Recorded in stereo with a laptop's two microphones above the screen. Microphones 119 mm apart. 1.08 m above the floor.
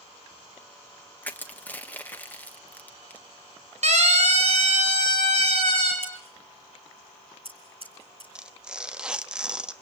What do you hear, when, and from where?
1.2 s crushing: 15° left (ahead or behind), 1.3 m
3.8 s a siren: 70° right (ahead or behind), 4 m; by 5.9 s 65° right (ahead or behind), 7 m
6.0 s scissors: 55° right (ahead or behind), 4.5 m
8.3 s tearing paper: 5° right (ahead or behind), 1.3 m